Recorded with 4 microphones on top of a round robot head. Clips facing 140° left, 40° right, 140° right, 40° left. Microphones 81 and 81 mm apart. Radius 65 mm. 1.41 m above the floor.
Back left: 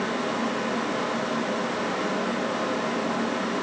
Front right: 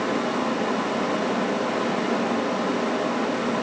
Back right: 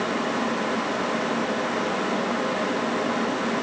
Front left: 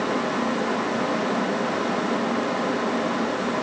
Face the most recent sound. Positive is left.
No sound to turn to.